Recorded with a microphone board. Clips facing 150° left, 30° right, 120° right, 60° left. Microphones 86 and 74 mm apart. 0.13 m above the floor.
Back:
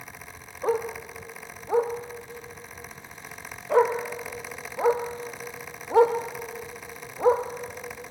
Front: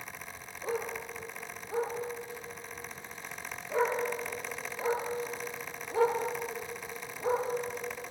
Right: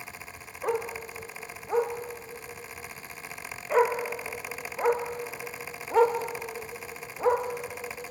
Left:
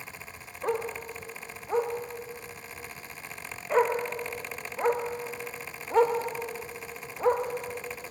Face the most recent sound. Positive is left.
turn(degrees=150)